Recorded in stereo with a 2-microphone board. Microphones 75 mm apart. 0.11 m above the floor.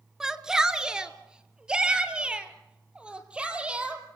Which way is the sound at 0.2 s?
5° right (ahead or behind).